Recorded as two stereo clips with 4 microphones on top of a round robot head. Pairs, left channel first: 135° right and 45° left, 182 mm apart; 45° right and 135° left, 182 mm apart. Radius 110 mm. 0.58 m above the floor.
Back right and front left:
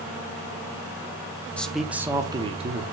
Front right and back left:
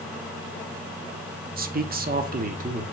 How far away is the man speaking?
About 1.2 m.